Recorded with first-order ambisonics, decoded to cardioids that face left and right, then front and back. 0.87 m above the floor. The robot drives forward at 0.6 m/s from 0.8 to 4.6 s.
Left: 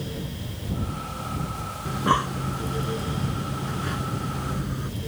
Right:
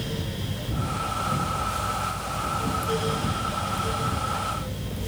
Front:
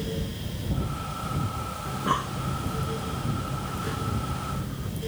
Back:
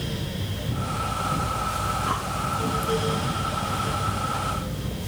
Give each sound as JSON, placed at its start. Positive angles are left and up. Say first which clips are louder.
{"t": 1.9, "sound": "breathing", "louder": "left 5 dB, back 2 dB", "azimuth_deg": 80}